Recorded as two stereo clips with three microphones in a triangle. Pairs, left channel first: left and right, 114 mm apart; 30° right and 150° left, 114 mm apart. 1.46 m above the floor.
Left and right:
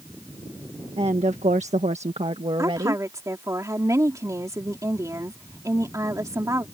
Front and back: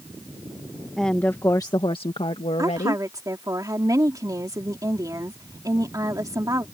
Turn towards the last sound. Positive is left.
turn(degrees=-150)